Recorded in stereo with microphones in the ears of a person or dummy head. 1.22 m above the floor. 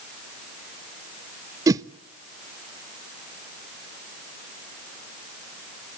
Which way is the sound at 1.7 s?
20° right (ahead or behind).